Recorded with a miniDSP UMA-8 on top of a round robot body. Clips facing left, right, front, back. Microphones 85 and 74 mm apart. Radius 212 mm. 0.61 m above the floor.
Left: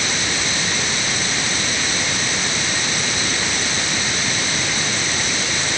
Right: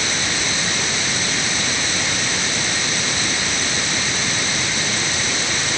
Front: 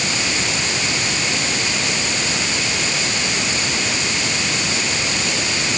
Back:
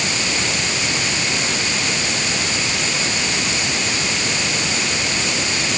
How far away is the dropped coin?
No dropped coin in this recording.